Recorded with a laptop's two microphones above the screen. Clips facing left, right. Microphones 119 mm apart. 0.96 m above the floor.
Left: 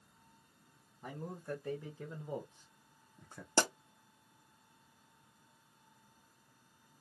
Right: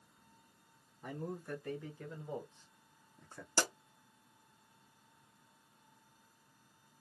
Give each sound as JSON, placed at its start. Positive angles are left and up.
{"t": 1.0, "sound": "a man speaking", "side_deg": 20, "distance_m": 1.3}
{"t": 3.6, "sound": "a pop", "side_deg": 55, "distance_m": 0.9}